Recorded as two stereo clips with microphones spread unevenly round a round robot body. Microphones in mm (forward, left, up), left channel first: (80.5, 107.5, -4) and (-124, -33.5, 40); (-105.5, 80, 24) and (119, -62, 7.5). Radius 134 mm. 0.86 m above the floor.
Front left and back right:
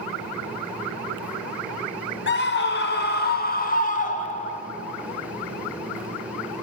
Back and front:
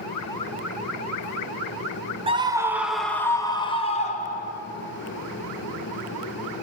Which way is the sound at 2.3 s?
30° left.